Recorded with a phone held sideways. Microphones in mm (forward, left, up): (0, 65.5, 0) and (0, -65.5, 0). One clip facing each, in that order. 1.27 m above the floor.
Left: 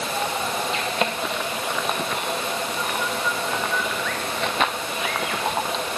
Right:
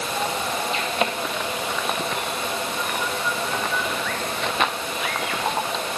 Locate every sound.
Only background noise.